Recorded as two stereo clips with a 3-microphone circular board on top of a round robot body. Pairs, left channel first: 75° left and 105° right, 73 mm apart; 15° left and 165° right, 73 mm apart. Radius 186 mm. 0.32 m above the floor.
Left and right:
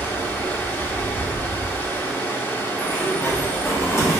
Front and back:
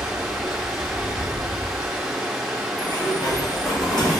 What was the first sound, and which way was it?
Running water, 115° left.